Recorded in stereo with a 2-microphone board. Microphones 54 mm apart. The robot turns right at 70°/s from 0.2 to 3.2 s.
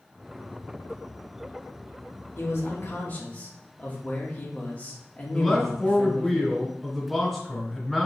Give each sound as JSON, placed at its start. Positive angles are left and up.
{"t": 2.4, "sound": "a man speaking", "azimuth_deg": 85, "distance_m": 1.2}
{"t": 5.3, "sound": "a man speaking", "side_deg": 5, "distance_m": 2.0}